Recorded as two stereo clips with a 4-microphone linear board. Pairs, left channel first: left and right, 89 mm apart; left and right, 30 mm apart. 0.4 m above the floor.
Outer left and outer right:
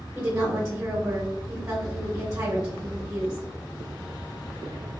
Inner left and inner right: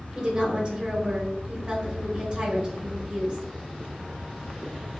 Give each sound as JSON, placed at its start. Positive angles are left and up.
{"t": 0.1, "sound": "a woman speaking", "side_deg": -25, "distance_m": 1.5}